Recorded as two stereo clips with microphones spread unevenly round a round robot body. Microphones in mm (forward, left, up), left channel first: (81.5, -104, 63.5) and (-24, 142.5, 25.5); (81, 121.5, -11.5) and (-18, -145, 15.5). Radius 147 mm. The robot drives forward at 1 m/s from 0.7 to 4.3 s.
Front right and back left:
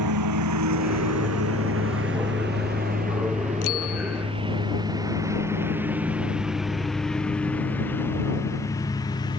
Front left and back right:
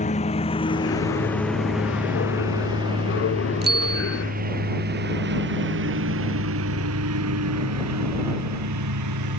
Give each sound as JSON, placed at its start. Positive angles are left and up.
{"t": 0.0, "sound": "a lawn mower", "azimuth_deg": 140}
{"t": 3.6, "sound": "a bicycle bell", "azimuth_deg": -55}